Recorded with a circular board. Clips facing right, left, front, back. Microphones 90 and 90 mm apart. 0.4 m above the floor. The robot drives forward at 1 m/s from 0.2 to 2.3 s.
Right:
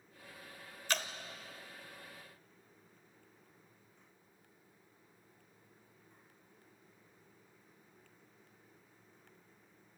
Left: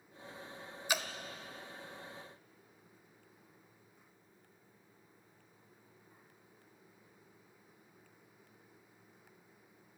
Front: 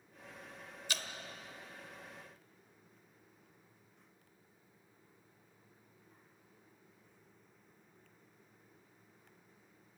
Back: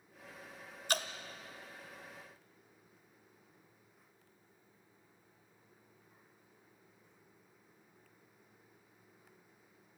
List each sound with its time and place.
0.9 s dripping: 165° left, 1.0 m; by 1.1 s 170° left, 1.2 m